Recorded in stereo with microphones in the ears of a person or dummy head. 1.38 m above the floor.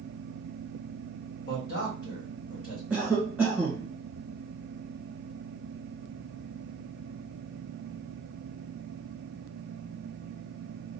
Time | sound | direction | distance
1.5 | a man speaking | 70° left (ahead or behind) | 2.5 m
2.9 | a cough | 5° left (ahead or behind) | 1.4 m